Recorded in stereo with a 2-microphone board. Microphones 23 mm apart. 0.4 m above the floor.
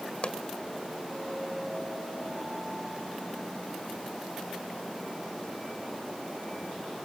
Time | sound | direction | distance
0.2 | a pop | 50° left (ahead or behind) | 1.8 m